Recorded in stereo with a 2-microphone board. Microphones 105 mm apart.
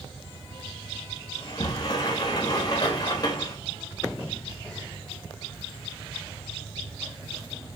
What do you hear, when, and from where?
1.4 s a sliding door: 40° left (ahead or behind), 0.7 m